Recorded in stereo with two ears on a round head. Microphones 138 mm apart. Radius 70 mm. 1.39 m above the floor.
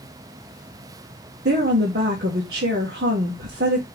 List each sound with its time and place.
1.4 s a woman speaking: 75° right (ahead or behind), 1.7 m